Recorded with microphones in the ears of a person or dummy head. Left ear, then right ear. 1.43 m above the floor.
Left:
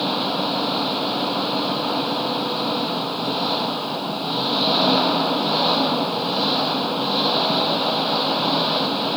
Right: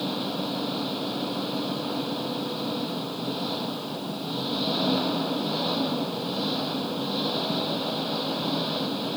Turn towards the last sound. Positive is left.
turn(degrees=40)  # may be behind; listen again after turning